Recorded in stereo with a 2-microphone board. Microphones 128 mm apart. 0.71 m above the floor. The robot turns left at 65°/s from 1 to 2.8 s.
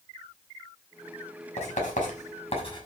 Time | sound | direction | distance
1.6 | writing | 60° left (ahead or behind) | 6 m